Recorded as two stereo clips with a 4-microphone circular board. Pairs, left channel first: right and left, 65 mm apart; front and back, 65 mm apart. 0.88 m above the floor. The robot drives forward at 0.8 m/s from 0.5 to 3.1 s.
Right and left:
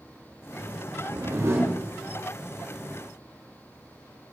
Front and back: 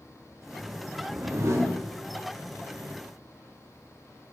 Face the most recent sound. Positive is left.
turn(degrees=165)